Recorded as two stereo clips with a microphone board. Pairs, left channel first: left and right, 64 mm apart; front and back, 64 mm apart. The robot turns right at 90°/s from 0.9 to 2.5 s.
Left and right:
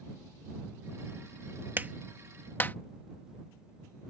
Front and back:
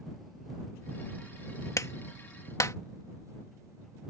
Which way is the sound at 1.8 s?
35° right.